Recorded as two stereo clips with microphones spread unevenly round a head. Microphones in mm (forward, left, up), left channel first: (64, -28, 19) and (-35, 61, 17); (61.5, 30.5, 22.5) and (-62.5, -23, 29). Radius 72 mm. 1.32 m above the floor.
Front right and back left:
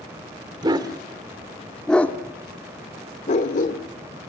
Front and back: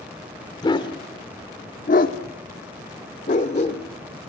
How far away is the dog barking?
About 1.7 m.